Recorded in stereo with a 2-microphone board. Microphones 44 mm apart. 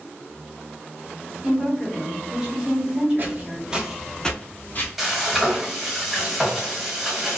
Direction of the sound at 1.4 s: 20° right (ahead or behind).